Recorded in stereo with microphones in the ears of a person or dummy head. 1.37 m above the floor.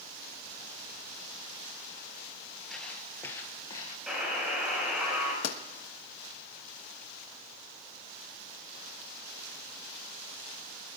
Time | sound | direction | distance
2.7 | footsteps | 5° left (ahead or behind) | 1.9 m
4.1 | a buzzer | centre (ahead or behind) | 6 m
5.4 | a pop | 80° left | 1.2 m